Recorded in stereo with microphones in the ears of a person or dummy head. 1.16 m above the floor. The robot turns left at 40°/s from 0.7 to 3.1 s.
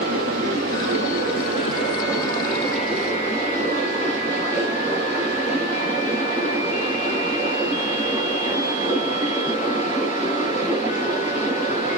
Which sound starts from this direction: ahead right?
Running water, at 0.0 s.